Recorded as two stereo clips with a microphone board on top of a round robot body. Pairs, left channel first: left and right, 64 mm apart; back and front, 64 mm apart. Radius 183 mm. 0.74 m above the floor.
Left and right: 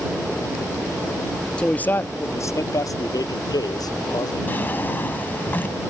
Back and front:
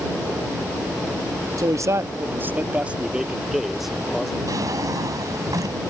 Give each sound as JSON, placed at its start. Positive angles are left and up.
{"t": 1.6, "sound": "a man speaking", "azimuth_deg": 15}
{"t": 4.5, "sound": "a drawer", "azimuth_deg": 30}